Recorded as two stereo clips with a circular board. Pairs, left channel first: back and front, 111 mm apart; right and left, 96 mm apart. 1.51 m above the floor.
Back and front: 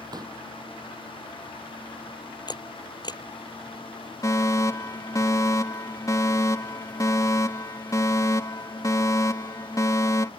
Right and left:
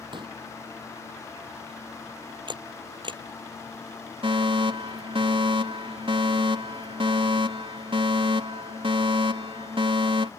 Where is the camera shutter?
130° left.